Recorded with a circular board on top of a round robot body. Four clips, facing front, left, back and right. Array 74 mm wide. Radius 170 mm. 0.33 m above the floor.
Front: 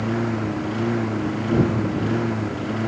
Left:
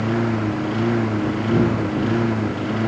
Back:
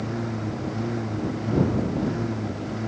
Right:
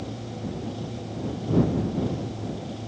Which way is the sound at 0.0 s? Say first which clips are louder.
Left 13 dB, front 6 dB; 65° left.